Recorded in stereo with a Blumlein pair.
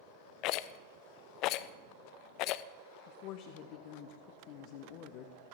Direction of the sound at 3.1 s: 40° left.